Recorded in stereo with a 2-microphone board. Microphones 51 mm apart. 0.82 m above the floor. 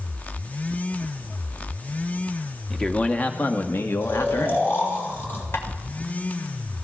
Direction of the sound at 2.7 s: 15° left (ahead or behind).